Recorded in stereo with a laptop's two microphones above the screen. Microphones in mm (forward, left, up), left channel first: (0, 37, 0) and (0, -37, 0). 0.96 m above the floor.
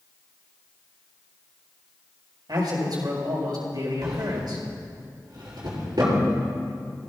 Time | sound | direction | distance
2.5 | a man speaking | 75° right (ahead or behind) | 4.5 m
4.0 | a drawer | 70° right (ahead or behind) | 5 m